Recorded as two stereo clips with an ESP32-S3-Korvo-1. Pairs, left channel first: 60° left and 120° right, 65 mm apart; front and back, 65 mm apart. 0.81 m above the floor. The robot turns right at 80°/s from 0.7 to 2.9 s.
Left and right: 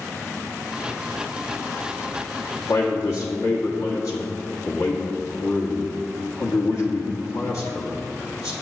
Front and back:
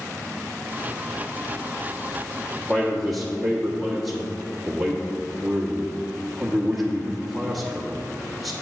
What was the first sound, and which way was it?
A man speaking, 70° left.